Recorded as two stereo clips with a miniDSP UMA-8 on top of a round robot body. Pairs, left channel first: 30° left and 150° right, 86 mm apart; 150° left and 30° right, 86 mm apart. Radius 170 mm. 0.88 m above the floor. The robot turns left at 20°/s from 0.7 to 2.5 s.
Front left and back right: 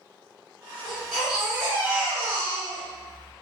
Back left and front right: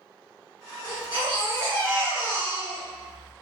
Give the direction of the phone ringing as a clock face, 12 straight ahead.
No phone ringing in this recording.